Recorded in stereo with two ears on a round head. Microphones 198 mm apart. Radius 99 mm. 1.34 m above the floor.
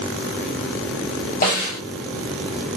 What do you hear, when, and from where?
1.4 s a snare drum: 40° left (ahead or behind), 1.9 m